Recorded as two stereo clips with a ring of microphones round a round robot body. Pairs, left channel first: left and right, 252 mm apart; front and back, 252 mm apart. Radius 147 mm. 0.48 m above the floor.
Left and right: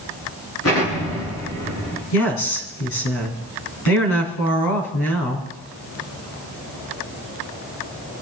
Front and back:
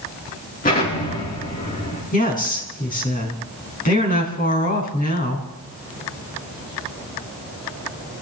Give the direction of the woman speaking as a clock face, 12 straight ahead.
10 o'clock.